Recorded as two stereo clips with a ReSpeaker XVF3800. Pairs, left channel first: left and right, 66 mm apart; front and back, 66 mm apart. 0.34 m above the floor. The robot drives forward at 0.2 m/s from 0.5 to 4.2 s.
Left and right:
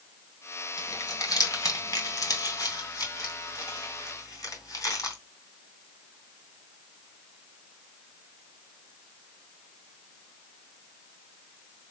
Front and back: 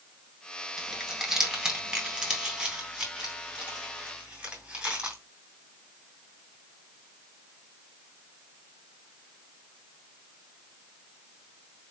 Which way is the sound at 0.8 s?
100° left.